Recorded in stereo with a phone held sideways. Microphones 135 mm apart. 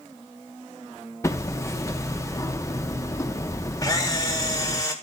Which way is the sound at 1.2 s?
20° left (ahead or behind).